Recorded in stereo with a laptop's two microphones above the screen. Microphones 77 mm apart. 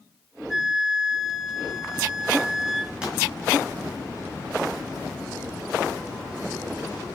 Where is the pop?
10° right (ahead or behind), 4.5 m.